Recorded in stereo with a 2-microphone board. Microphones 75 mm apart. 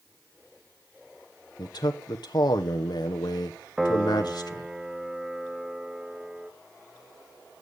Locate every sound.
1.6 s a man speaking: 65° left (ahead or behind), 0.9 m
3.8 s a piano: 10° right (ahead or behind), 1.0 m